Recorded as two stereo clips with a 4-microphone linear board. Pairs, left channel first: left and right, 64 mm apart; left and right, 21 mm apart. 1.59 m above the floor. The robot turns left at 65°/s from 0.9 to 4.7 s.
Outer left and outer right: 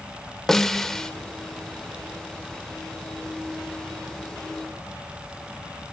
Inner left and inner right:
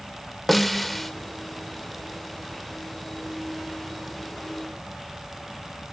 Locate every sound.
0.5 s a snare drum: 5° left (ahead or behind), 1.3 m; by 1.1 s 10° left (ahead or behind), 1.3 m